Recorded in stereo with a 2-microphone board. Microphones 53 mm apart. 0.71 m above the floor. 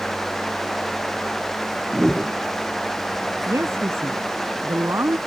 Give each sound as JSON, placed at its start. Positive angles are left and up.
{"t": 1.9, "sound": "a whoosh", "side_deg": 10}
{"t": 3.5, "sound": "a woman speaking", "side_deg": -65}